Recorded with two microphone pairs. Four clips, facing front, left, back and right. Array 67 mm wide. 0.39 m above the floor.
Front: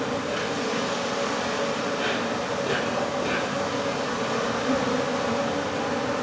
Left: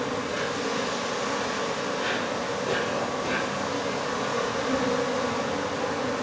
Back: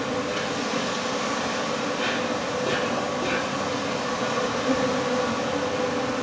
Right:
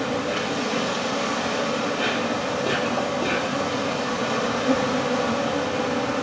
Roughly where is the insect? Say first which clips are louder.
Right 3 dB, even; right.